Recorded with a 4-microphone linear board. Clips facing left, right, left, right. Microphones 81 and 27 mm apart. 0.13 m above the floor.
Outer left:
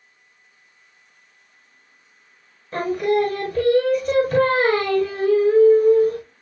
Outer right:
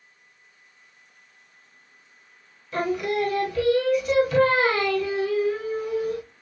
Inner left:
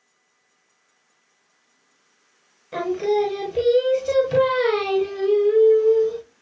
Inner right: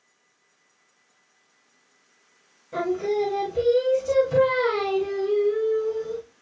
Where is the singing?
45° left (ahead or behind), 0.8 m.